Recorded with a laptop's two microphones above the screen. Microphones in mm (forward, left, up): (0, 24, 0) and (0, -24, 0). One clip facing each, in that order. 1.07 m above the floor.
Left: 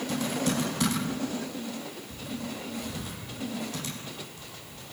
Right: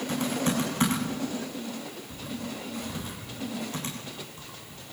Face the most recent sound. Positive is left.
turn(degrees=-30)  # may be behind; listen again after turning